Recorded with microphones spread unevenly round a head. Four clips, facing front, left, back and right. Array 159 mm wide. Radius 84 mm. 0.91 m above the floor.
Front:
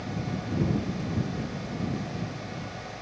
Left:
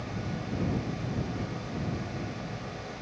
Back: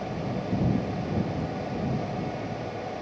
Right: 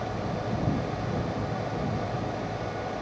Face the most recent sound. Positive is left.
No sound to turn to.